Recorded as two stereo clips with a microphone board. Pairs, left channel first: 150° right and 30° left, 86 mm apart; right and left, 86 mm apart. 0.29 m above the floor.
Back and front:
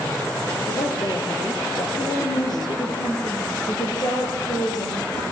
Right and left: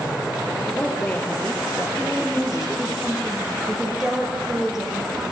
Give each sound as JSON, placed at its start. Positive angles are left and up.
{"t": 0.7, "sound": "a woman speaking", "azimuth_deg": -170, "distance_m": 4.5}
{"t": 2.0, "sound": "a woman speaking", "azimuth_deg": 175, "distance_m": 6.5}